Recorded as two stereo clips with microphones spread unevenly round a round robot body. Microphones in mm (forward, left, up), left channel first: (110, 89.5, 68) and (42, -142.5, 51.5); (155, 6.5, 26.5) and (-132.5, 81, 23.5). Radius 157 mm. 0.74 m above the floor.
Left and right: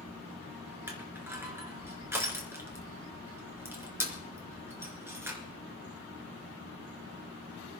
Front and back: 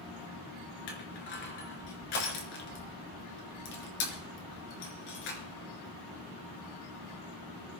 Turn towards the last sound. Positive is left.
turn(degrees=-25)